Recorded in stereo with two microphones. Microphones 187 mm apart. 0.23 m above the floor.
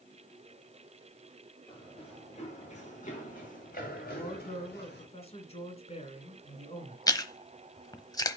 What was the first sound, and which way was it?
Running footsteps, 30° left (ahead or behind).